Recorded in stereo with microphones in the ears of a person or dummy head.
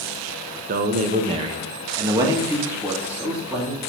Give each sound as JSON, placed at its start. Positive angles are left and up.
{"t": 0.7, "sound": "a man speaking", "side_deg": -45, "distance_m": 1.2}